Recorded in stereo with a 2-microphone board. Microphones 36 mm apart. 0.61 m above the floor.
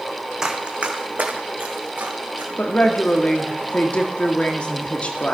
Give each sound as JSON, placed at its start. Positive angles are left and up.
{"t": 0.4, "sound": "running footsteps", "side_deg": -15, "distance_m": 1.5}
{"t": 2.6, "sound": "a woman speaking", "side_deg": 35, "distance_m": 1.0}